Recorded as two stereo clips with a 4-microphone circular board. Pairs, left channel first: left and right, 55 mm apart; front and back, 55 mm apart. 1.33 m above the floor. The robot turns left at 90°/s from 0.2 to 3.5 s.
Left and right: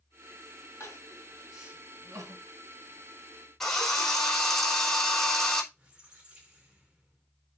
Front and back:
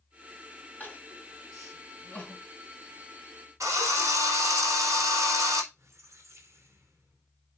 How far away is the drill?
About 4.5 m.